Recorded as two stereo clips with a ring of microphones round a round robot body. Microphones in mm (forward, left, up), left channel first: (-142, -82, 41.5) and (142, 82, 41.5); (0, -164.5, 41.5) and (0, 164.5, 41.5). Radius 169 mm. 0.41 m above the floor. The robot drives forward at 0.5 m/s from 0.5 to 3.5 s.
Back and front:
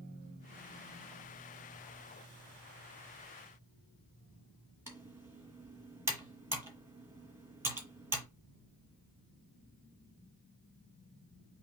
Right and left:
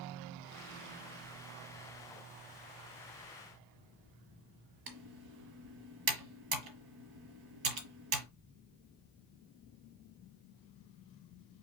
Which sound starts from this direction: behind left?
Typing on a keyboard, at 4.9 s.